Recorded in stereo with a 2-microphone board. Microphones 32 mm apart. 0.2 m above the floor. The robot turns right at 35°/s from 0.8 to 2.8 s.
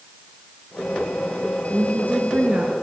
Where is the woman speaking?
95° right, 3 m; by 2.7 s 60° right, 3 m.